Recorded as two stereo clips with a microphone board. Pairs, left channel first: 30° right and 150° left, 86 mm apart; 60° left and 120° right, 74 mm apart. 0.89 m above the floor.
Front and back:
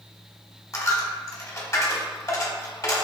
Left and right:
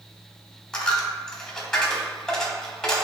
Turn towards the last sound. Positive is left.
turn(degrees=-15)